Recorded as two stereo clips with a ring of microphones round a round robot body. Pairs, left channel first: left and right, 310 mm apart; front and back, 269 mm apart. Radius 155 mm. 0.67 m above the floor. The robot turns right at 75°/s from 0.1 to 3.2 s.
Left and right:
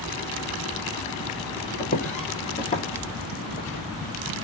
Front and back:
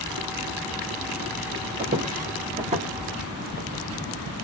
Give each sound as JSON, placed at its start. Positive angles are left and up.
{"t": 1.8, "sound": "footsteps", "azimuth_deg": 135, "distance_m": 0.8}